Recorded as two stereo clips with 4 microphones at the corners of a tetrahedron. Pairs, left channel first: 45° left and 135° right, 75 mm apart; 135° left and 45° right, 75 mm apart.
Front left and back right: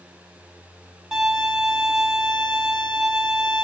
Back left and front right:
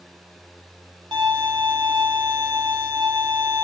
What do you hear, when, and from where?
1.1 s a violin: 55° right, 0.8 m